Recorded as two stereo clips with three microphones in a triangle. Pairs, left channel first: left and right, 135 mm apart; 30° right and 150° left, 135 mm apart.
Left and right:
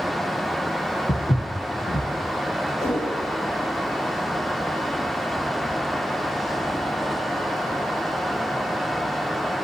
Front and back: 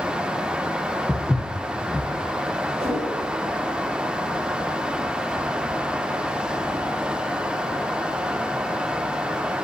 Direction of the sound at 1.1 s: 60° left.